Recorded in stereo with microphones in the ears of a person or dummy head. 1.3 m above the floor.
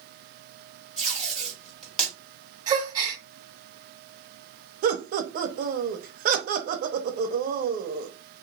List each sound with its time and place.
1.0 s tape being pulled: 5° left (ahead or behind), 1.3 m
2.7 s a gasp: 25° right (ahead or behind), 0.8 m
4.8 s laughter: 50° right (ahead or behind), 0.6 m